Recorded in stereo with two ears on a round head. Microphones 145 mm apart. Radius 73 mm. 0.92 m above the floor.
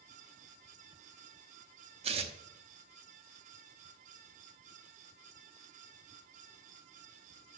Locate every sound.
2.0 s tearing paper: 35° right (ahead or behind), 1.0 m